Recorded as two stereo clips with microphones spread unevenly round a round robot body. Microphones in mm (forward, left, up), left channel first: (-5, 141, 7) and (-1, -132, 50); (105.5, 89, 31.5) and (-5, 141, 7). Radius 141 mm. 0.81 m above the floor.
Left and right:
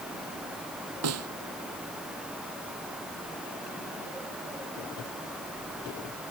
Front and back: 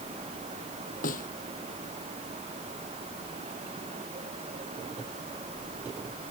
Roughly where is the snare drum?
Ahead right.